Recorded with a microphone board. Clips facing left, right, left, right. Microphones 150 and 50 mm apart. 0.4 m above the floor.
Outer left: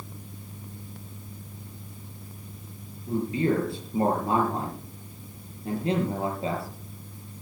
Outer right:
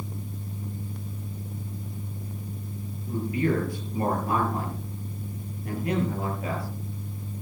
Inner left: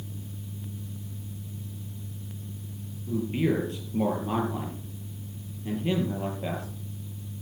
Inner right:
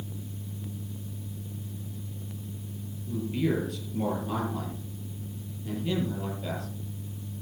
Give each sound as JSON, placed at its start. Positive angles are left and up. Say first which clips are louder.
{"t": 3.1, "sound": "a man speaking", "louder": "outer left 1 dB, inner left 2 dB", "side_deg": 25, "distance_m": 7.5}